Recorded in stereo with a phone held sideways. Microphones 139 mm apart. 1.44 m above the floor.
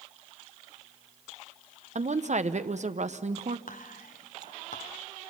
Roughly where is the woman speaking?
Right.